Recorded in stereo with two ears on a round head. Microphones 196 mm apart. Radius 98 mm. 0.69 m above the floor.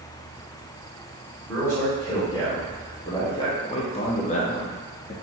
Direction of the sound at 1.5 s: 15° left (ahead or behind).